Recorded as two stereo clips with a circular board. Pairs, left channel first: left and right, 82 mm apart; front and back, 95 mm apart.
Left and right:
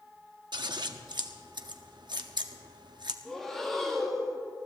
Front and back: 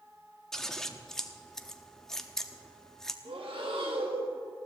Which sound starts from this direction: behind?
Breathing, at 3.2 s.